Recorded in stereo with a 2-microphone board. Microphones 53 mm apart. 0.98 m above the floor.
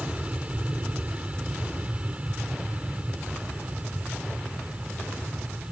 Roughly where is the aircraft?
Right.